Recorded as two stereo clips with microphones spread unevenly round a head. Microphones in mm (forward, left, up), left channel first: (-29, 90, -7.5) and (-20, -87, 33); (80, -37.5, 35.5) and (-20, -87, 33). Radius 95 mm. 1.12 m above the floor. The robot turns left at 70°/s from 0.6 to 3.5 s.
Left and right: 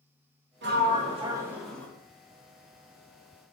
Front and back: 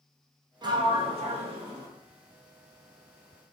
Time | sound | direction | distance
0.6 | a sliding door | 110° right | 0.9 m